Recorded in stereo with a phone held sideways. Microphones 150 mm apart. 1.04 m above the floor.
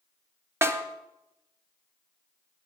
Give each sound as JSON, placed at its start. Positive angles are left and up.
{"t": 0.6, "sound": "a snare drum", "side_deg": -20, "distance_m": 0.9}